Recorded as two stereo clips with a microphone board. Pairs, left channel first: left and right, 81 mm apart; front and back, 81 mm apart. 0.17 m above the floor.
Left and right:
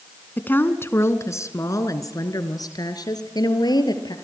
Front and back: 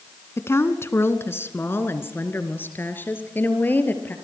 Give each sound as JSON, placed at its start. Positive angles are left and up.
{"t": 0.4, "sound": "a woman speaking", "azimuth_deg": 35, "distance_m": 1.6}